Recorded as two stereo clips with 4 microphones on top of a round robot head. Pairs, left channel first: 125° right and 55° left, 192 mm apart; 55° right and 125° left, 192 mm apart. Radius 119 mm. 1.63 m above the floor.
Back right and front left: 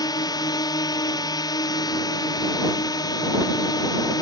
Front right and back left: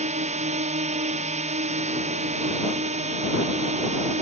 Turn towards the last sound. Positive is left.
turn(degrees=170)